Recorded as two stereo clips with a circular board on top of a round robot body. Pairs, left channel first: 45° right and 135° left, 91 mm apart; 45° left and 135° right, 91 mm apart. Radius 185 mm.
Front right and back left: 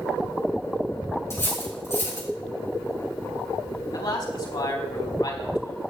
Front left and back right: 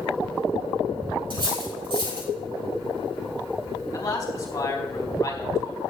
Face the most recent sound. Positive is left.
turn(degrees=-5)